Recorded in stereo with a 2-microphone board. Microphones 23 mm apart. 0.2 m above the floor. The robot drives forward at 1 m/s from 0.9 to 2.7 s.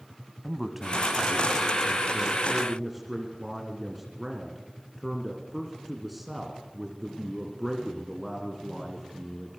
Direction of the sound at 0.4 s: 15° right (ahead or behind).